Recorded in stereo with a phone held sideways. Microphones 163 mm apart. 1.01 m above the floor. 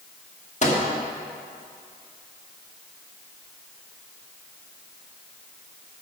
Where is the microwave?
45° left (ahead or behind), 1.5 m.